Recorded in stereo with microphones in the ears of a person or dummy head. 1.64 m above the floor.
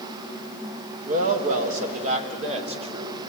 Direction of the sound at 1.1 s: 55° right (ahead or behind).